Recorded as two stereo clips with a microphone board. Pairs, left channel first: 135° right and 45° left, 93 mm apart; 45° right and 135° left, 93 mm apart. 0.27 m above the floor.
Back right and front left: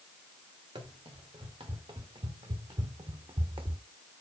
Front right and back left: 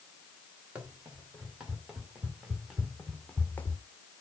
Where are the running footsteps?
60° left, 2 m; by 3.8 s 15° left, 0.5 m.